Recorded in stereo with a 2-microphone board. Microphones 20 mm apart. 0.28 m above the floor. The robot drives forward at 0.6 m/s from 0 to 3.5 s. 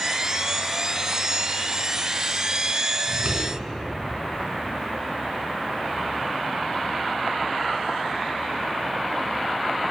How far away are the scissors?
About 3 m.